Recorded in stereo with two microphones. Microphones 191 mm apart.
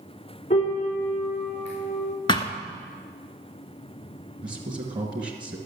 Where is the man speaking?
25° right (ahead or behind), 1.4 m.